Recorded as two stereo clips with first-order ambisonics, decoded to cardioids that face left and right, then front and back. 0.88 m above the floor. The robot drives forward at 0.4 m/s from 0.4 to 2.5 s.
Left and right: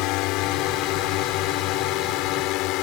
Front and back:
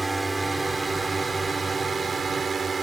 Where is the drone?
100° left; by 2.8 s 110° left.